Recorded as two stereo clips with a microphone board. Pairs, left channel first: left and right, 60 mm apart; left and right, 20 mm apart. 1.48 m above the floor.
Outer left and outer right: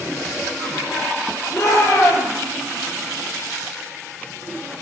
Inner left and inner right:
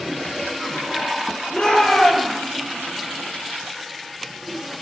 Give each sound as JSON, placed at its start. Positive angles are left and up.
{"t": 1.5, "sound": "a shout", "side_deg": 55, "distance_m": 7.0}